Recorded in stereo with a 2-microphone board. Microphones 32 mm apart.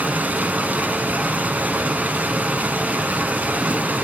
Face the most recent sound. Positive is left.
turn(degrees=-50)  # may be behind; listen again after turning